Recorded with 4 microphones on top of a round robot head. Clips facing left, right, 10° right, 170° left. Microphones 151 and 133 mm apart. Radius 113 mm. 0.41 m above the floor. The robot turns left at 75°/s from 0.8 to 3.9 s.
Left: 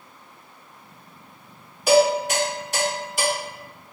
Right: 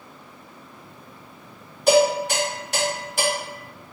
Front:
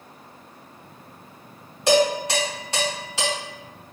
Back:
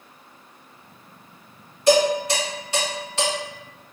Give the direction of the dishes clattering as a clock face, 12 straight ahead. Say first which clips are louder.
Even, back 1 dB; 12 o'clock.